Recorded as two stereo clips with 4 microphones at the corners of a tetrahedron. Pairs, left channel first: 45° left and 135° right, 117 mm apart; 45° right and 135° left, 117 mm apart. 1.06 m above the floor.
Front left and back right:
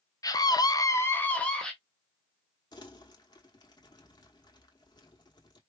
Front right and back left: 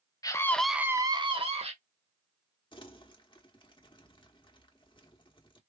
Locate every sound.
0.2 s a scream: straight ahead, 0.7 m; by 1.7 s 130° left, 1.0 m
2.7 s crumpling: straight ahead, 1.0 m